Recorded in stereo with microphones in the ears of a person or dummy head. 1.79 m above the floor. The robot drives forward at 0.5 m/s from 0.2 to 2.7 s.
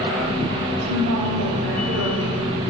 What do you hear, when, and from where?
0.8 s a woman speaking: 80° right, 3.5 m; by 2.5 s 75° right (ahead or behind), 4 m